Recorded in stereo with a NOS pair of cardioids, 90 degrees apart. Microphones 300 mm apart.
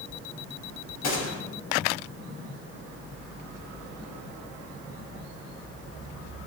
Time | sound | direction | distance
1.0 | a gunshot | 55° left | 4 m